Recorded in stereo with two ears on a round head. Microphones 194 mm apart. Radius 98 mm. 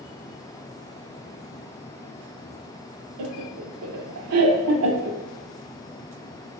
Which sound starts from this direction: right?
Laughter, at 3.2 s.